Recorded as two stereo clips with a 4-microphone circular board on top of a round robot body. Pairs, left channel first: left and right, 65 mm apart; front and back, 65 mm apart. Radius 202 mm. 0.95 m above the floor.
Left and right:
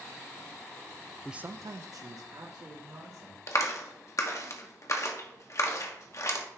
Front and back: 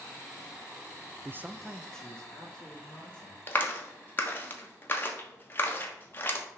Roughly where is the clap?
Ahead left.